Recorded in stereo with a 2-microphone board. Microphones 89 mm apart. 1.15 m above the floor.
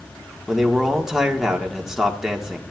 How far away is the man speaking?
About 1.5 m.